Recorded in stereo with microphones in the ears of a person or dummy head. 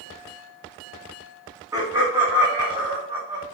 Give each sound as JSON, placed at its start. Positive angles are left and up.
{"t": 1.7, "sound": "laughter", "side_deg": -15, "distance_m": 2.5}